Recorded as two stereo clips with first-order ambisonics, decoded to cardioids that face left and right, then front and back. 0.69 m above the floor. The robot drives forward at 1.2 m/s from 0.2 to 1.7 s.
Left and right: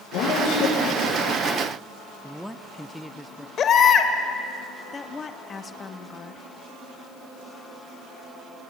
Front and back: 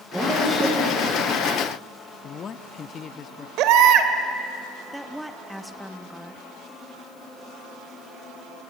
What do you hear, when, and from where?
0.1 s a woman speaking: 100° left, 9.5 m; by 1.4 s 110° left, 10 m
2.2 s a man speaking: 5° left, 0.8 m
3.6 s a baby crying: 150° left, 1.7 m
4.9 s a woman speaking: 95° left, 1.0 m